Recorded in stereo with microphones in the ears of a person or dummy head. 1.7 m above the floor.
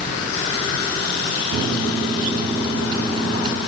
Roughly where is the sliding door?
I don't hear a sliding door.